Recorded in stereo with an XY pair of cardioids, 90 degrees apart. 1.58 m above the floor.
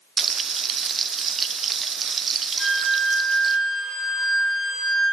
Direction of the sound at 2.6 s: 55° left.